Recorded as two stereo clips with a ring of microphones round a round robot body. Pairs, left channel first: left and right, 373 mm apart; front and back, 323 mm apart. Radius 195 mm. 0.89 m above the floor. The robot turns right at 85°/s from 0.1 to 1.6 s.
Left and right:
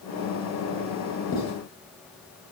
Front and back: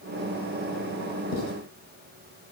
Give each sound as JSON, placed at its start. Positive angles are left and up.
{"t": 1.3, "sound": "writing", "azimuth_deg": 20, "distance_m": 8.0}